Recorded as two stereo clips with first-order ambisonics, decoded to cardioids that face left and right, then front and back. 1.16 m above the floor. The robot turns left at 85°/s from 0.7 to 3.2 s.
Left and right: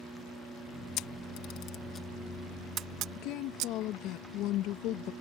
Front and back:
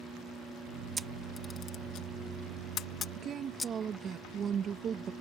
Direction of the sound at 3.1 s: 125° left.